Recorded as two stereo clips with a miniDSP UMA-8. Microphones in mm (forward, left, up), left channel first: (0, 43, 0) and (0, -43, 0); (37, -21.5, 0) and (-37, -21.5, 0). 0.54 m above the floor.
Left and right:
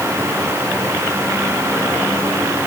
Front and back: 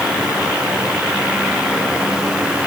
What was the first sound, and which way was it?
Only background noise.